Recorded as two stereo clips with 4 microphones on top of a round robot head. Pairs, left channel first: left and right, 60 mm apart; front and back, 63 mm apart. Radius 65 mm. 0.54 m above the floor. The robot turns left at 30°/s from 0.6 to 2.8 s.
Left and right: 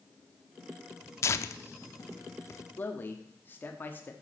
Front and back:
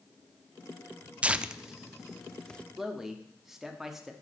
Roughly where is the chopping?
I don't hear chopping.